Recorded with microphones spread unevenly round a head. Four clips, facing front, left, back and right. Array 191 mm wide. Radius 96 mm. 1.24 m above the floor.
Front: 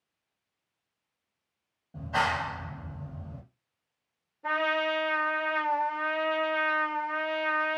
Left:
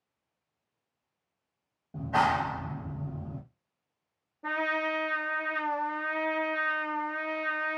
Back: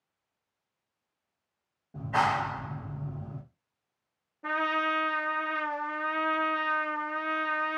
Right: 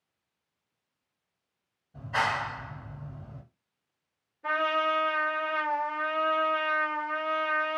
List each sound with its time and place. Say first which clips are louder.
1.9 s a clap: left 3 dB, back 2 dB; 90° left, 1.4 m
4.4 s a trumpet: right 3 dB, front 1 dB; 130° left, 1.4 m